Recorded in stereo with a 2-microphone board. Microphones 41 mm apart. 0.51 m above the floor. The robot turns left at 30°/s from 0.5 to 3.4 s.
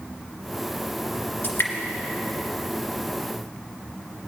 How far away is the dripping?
About 2 m.